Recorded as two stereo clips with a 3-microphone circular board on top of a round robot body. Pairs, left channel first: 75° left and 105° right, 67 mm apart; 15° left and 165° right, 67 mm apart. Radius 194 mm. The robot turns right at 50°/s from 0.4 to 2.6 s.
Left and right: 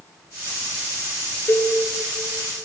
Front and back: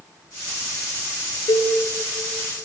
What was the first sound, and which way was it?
A cowbell, 15° left.